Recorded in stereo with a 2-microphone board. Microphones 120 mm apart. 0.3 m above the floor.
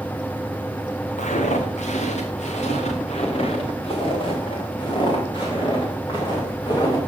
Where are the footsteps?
85° left, 3 m; by 7.0 s 35° left (ahead or behind), 6.5 m.